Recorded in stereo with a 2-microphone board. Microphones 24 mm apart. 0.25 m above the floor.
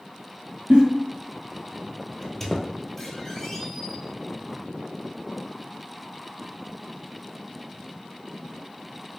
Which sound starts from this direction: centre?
A squeak, at 2.2 s.